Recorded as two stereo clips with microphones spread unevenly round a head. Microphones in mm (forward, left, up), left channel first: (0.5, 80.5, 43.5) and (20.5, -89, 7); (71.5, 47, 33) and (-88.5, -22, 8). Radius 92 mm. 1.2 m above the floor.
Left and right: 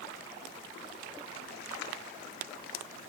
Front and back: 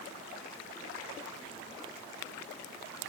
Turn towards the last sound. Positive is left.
No sound to turn to.